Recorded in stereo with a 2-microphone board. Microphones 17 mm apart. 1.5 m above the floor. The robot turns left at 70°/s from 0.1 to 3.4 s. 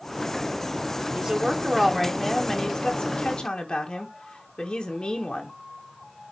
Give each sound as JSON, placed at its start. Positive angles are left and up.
{"t": 1.1, "sound": "a woman speaking", "azimuth_deg": -105, "distance_m": 1.4}